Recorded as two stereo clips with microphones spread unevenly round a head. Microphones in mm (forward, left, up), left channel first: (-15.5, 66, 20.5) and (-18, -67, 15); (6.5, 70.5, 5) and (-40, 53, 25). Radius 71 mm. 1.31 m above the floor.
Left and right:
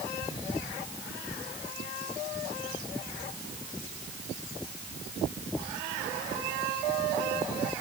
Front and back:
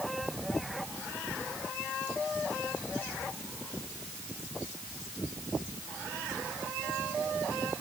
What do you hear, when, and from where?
Only background noise.